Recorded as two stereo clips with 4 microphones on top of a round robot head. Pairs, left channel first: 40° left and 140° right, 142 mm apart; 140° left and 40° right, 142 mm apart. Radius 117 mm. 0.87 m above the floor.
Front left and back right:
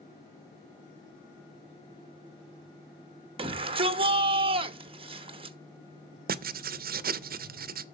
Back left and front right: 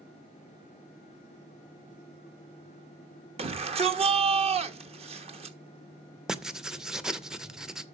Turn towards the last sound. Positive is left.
turn(degrees=-130)